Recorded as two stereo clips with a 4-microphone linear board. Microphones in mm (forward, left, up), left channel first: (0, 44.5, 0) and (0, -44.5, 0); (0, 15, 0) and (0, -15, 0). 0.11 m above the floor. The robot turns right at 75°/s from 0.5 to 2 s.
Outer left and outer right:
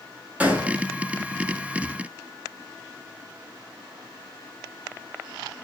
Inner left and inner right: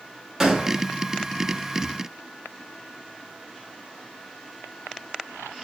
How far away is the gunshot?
About 0.6 m.